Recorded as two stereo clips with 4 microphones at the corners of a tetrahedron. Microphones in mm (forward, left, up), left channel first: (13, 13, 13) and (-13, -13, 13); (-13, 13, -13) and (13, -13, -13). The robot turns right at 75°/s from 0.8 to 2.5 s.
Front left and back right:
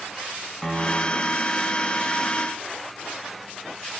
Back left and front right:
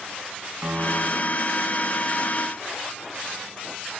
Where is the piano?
40° right, 1.5 m; by 1.5 s 10° left, 1.5 m.